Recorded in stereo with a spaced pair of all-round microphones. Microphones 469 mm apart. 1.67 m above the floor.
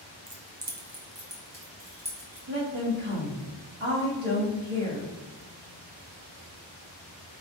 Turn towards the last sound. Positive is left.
turn(degrees=-70)  # may be behind; listen again after turning